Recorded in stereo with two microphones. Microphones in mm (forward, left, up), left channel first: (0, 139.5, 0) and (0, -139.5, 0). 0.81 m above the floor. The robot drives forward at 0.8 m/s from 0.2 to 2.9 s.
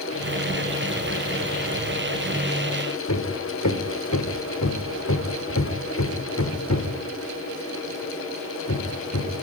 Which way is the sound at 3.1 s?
75° left (ahead or behind).